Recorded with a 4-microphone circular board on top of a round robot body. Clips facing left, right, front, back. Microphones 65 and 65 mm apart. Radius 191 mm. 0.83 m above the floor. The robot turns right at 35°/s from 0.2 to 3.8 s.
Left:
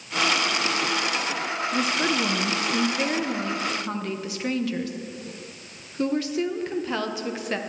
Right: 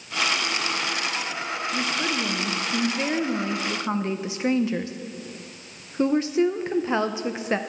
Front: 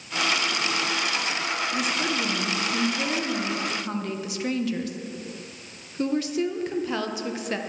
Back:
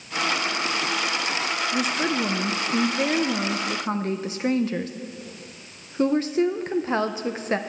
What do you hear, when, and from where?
1.7 s a woman speaking: 140° left, 0.8 m; by 7.6 s 145° right, 0.8 m